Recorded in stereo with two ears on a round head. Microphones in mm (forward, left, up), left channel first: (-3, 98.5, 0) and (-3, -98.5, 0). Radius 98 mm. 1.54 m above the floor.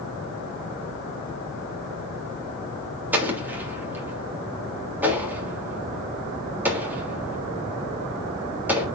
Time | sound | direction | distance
3.1 | an explosion | 10° right (ahead or behind) | 3.5 m